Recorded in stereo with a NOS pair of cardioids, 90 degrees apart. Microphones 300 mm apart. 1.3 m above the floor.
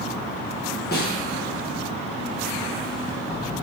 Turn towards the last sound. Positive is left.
turn(degrees=35)